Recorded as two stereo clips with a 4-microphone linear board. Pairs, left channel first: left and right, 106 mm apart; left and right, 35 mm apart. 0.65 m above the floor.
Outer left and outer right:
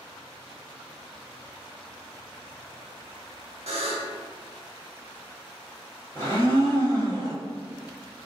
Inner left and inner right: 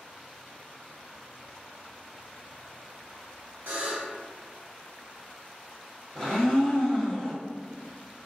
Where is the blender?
20° left (ahead or behind), 1.3 m.